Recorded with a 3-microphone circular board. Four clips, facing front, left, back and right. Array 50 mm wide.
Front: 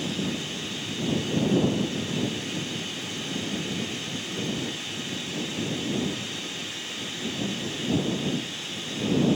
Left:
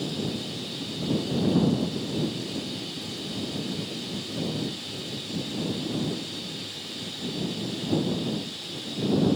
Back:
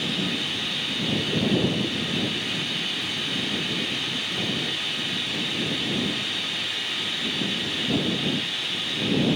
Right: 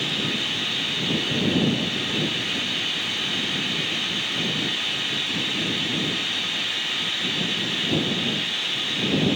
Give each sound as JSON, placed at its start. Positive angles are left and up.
{"t": 0.0, "sound": "running water", "azimuth_deg": -115}